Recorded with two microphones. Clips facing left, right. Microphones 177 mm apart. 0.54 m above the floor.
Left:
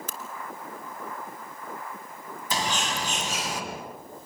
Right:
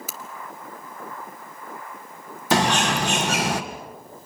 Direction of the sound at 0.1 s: 5° right (ahead or behind).